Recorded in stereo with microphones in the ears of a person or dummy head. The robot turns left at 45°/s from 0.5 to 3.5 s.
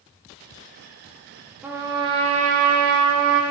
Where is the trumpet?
10° right, 0.6 m; by 3.4 s 90° right, 0.6 m.